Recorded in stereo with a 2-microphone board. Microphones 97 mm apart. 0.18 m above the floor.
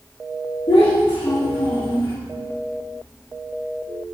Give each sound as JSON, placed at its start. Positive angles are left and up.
{"t": 0.7, "sound": "a child speaking", "side_deg": 60, "distance_m": 3.5}